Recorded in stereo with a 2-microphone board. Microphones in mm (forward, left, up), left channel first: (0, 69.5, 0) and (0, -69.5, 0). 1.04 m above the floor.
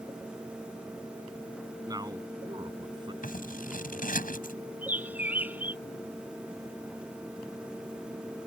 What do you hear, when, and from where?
1.9 s a man speaking: 25° right (ahead or behind); by 3.1 s 35° right (ahead or behind)
3.2 s scissors: 80° left
4.8 s a bird: 10° right (ahead or behind)